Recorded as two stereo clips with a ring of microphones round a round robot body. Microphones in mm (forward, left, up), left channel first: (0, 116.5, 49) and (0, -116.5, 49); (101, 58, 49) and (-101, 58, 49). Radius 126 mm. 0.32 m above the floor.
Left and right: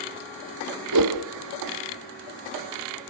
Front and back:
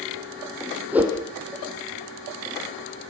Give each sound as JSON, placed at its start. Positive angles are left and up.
{"t": 0.9, "sound": "a whoosh", "azimuth_deg": -95, "distance_m": 2.5}